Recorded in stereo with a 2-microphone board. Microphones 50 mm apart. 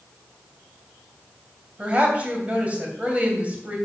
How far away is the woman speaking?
About 2.5 m.